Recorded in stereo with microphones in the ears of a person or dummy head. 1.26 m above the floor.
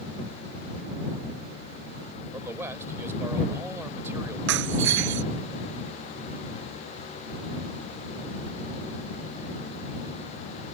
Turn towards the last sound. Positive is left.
turn(degrees=-75)  # may be behind; listen again after turning